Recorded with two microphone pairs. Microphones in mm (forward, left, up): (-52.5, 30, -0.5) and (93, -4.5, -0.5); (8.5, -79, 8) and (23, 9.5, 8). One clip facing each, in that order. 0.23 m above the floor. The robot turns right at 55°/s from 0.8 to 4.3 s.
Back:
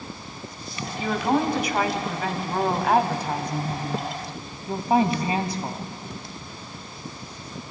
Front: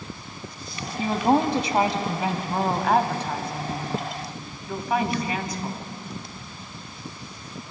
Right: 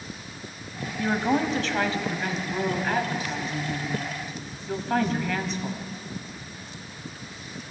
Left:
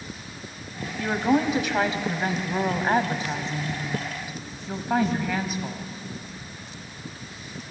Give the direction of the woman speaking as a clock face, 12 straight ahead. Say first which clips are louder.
Front 2 dB, left 2 dB; 1 o'clock.